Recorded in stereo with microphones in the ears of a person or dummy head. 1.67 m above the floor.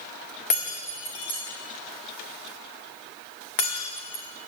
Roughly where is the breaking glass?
Left.